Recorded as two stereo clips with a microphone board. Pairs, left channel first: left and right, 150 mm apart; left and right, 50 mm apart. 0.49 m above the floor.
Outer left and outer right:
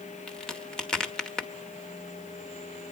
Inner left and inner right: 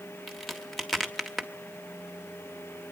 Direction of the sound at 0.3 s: 5° left (ahead or behind).